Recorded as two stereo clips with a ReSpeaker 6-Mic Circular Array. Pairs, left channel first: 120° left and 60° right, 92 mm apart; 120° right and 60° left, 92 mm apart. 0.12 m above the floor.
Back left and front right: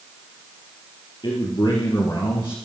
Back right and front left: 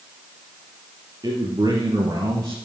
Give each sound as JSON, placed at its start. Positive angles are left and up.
{"t": 1.2, "sound": "a man speaking", "azimuth_deg": 100, "distance_m": 2.5}